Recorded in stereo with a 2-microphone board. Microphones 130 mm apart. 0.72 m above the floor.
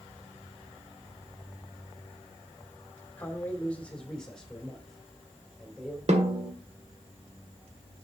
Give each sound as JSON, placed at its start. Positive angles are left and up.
{"t": 3.2, "sound": "a man speaking", "side_deg": 15, "distance_m": 2.5}
{"t": 6.1, "sound": "a snare drum", "side_deg": -55, "distance_m": 1.7}